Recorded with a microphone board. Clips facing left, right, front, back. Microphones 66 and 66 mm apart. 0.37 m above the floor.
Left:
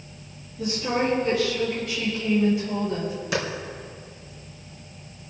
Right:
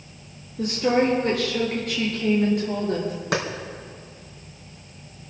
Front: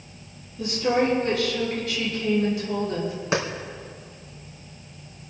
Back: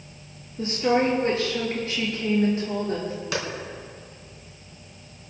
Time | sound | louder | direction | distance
0.6 | a woman speaking | right 4 dB, back 1 dB | 125° right | 7 m
3.3 | a clap | right 2 dB, front 6 dB | 60° right | 3.5 m